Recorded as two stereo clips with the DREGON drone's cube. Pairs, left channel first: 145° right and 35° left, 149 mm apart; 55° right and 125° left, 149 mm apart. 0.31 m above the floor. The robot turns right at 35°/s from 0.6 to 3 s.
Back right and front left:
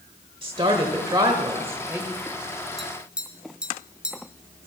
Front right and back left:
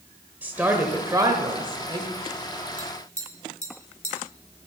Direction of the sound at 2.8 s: 55° right.